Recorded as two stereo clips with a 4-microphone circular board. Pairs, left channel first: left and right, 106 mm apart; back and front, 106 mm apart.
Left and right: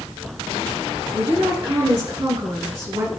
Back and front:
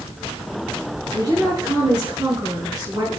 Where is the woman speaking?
50° right, 6.5 m.